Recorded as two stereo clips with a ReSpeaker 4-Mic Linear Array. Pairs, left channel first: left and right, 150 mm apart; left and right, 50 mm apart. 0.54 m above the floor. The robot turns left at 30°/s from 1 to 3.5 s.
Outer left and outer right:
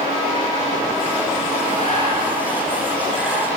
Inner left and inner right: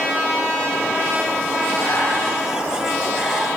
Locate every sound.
1.8 s breathing: 50° left (ahead or behind), 7 m; by 3.5 s centre (ahead or behind), 7 m